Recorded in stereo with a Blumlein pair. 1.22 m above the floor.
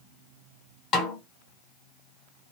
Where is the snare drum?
35° left, 1.1 m.